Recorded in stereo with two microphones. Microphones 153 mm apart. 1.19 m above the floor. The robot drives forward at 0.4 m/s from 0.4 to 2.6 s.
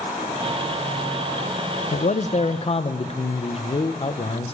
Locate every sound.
1.9 s a man speaking: 55° left (ahead or behind), 0.5 m; by 4.5 s 40° left (ahead or behind), 0.7 m